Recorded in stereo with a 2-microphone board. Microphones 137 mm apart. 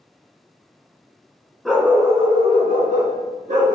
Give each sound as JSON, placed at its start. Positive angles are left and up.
{"t": 1.6, "sound": "a dog barking", "side_deg": 0, "distance_m": 0.6}